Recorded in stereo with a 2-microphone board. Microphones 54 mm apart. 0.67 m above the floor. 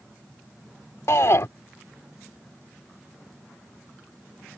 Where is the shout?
65° left (ahead or behind).